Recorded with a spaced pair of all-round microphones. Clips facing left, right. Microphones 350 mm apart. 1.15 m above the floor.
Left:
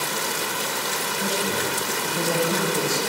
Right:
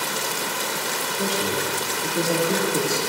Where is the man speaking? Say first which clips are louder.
Right 1 dB; 70° right (ahead or behind), 2.5 m.